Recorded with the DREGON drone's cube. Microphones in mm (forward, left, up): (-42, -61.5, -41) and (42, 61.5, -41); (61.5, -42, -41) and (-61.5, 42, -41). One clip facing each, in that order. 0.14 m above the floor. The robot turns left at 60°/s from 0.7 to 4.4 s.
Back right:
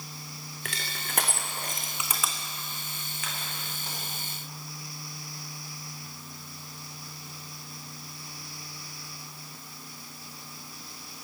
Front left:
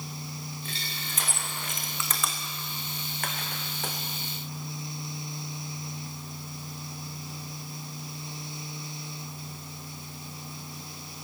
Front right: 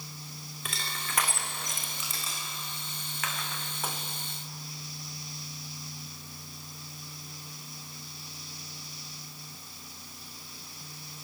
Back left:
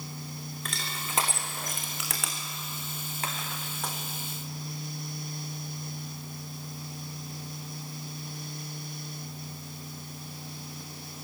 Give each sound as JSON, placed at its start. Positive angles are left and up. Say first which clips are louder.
{"t": 0.7, "sound": "crushing", "louder": "even, front right 2 dB", "azimuth_deg": -120, "distance_m": 3.5}